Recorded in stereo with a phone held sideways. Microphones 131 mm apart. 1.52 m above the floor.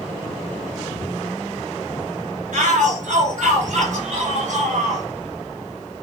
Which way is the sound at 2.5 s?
75° right (ahead or behind).